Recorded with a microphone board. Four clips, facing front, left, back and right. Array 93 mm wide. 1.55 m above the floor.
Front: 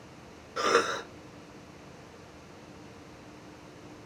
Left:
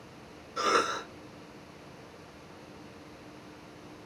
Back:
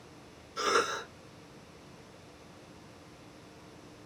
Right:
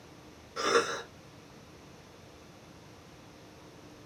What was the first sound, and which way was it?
A cough, straight ahead.